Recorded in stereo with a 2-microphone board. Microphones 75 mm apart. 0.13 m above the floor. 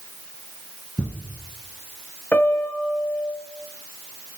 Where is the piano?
25° left (ahead or behind), 0.8 m.